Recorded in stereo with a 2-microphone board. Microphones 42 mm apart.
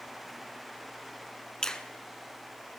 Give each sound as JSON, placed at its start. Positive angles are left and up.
{"t": 1.6, "sound": "a finger snap", "side_deg": 15, "distance_m": 1.0}